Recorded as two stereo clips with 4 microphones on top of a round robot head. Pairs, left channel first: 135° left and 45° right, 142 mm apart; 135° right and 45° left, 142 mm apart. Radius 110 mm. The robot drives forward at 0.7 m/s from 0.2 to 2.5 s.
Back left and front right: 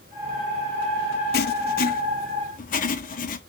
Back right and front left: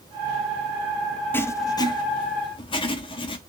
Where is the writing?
150° left, 0.5 m; by 3.4 s 170° left, 1.3 m.